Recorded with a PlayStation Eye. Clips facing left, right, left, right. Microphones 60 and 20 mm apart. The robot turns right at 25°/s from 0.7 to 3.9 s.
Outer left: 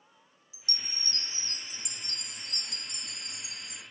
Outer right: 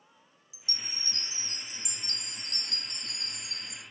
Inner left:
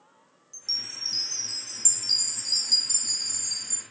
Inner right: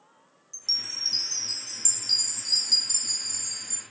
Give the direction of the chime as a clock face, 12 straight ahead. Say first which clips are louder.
Even, inner right 3 dB; 1 o'clock.